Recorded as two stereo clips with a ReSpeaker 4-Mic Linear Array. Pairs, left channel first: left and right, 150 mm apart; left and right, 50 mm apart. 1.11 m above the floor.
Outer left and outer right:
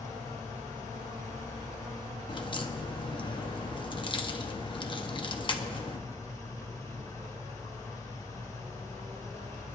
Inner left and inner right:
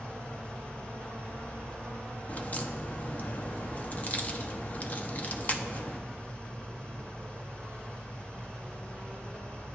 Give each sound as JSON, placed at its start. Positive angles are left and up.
{"t": 0.0, "sound": "an engine running", "side_deg": 25, "distance_m": 2.5}
{"t": 2.3, "sound": "a crack", "side_deg": 35, "distance_m": 0.8}